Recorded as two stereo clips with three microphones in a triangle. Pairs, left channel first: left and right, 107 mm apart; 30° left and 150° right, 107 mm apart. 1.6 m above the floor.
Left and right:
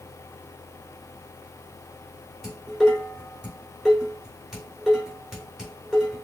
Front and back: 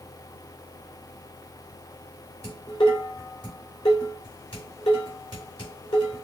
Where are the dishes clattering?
Straight ahead, 3 m.